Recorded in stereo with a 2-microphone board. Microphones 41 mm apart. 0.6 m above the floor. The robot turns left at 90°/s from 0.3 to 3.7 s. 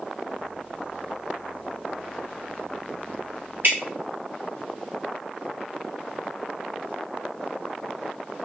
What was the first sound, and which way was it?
Dripping, 55° right (ahead or behind).